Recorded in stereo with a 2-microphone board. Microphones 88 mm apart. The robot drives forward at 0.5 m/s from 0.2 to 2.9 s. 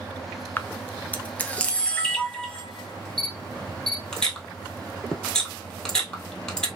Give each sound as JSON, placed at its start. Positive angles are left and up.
{"t": 0.6, "sound": "a camera shutter", "side_deg": 25, "distance_m": 0.6}